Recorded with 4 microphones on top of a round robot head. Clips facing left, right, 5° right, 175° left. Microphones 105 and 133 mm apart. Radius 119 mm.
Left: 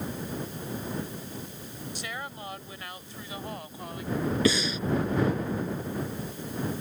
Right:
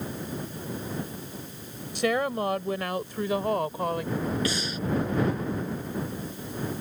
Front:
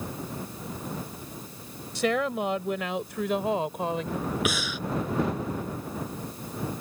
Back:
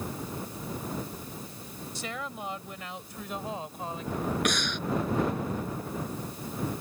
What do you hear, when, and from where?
1.9 s a woman speaking: 45° right; by 4.2 s 40° right
4.5 s breathing: 80° left